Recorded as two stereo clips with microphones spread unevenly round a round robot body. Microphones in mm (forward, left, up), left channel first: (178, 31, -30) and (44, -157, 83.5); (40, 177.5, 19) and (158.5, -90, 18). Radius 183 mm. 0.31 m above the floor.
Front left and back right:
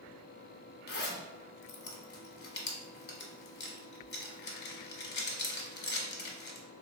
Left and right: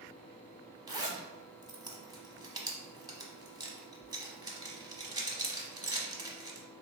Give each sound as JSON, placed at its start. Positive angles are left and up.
{"t": 0.9, "sound": "a zipper", "azimuth_deg": 10, "distance_m": 0.7}